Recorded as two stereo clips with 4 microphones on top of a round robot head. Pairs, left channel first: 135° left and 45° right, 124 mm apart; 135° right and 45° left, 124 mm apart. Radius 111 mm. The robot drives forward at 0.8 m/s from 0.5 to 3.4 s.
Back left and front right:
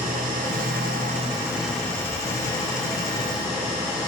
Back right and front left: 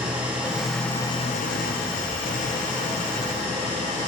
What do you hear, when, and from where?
0.0 s an engine running: 35° right, 0.7 m; by 4.1 s 170° right, 1.8 m